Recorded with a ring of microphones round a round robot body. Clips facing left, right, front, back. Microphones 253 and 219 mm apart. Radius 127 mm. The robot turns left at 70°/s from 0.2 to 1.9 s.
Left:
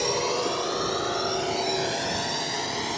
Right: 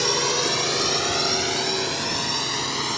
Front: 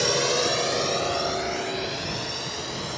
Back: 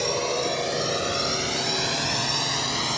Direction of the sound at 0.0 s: 75° right.